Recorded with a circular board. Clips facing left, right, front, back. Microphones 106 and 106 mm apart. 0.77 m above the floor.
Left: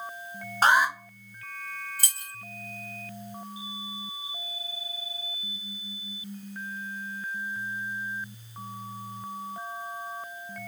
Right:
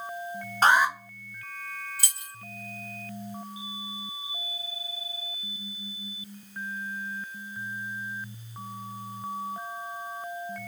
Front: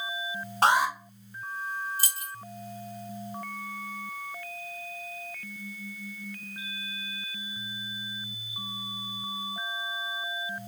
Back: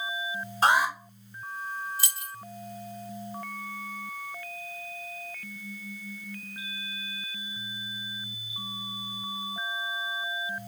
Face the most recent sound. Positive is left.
turn(degrees=50)